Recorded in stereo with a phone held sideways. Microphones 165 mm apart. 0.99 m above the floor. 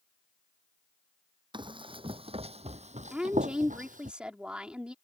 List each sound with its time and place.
1.5 s running footsteps: 30° right (ahead or behind); by 4.1 s 55° right (ahead or behind)
3.1 s a woman speaking: 5° right (ahead or behind)